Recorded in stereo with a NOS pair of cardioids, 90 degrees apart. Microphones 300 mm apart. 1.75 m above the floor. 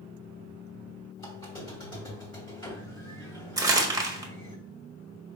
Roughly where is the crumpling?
Ahead.